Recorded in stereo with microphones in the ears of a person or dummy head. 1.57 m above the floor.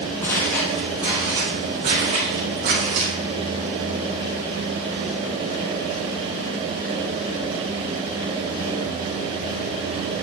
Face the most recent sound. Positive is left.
turn(degrees=-60)  # may be behind; listen again after turning